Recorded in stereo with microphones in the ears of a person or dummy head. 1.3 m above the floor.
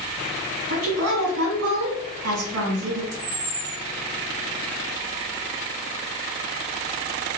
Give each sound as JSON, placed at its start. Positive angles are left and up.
{"t": 0.7, "sound": "a woman speaking", "side_deg": -75, "distance_m": 1.5}
{"t": 3.1, "sound": "a camera shutter", "side_deg": -20, "distance_m": 1.1}